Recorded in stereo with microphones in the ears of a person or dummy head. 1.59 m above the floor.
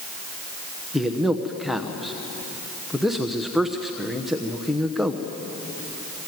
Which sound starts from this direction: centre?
A man speaking, at 0.9 s.